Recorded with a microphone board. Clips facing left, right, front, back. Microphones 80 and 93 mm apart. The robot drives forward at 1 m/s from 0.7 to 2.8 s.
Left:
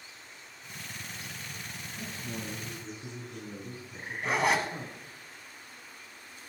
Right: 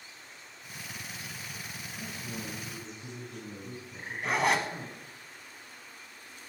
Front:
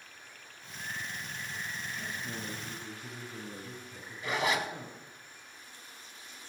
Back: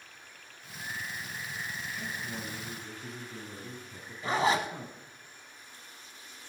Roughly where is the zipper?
Behind.